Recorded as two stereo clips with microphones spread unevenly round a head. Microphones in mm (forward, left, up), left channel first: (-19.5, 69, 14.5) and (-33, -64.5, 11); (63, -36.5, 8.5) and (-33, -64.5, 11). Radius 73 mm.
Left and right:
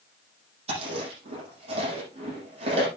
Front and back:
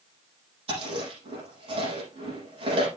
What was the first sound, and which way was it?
Chewing, 140° right.